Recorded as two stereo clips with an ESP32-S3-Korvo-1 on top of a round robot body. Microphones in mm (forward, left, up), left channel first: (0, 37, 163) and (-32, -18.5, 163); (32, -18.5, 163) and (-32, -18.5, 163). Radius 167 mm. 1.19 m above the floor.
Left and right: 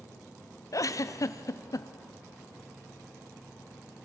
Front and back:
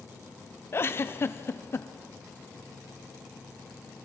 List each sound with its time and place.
0.7 s a giggle: 45° left, 1.0 m